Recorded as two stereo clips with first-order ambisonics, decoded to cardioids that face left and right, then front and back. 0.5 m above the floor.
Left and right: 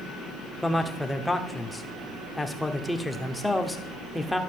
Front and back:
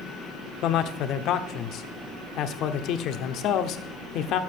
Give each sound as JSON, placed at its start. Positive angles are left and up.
{"t": 0.6, "sound": "a man speaking", "azimuth_deg": 10, "distance_m": 0.9}